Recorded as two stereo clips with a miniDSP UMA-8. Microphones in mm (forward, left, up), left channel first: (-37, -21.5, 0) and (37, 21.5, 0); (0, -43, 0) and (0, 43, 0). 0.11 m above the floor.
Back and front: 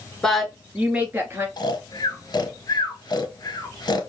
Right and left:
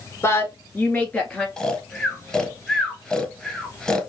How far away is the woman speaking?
About 1.2 m.